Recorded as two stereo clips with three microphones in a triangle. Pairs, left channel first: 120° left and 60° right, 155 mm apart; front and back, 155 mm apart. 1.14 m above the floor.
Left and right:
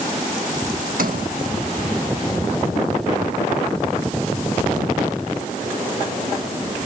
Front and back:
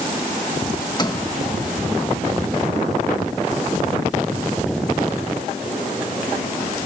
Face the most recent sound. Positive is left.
turn(degrees=-60)